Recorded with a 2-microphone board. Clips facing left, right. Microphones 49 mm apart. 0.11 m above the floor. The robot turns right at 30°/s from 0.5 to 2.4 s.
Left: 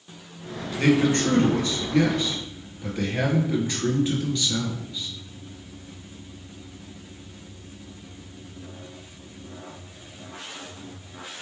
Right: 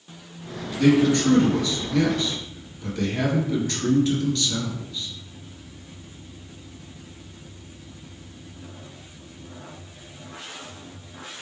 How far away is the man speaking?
About 1.4 m.